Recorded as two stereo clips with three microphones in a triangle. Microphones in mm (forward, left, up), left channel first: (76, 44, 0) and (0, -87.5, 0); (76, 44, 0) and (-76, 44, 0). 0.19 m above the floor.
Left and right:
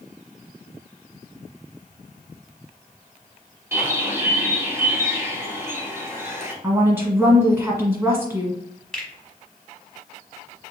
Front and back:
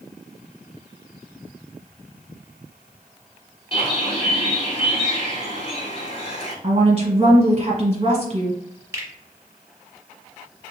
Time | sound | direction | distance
3.7 | a bird | 50° right | 1.2 m
6.6 | a woman speaking | 175° left | 1.3 m
8.9 | a finger snap | 140° left | 1.0 m